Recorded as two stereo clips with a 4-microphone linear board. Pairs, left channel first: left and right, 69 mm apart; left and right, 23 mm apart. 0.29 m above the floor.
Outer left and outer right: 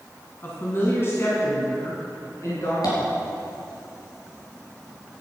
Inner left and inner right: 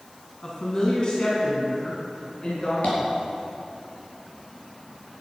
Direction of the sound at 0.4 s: 30° left (ahead or behind).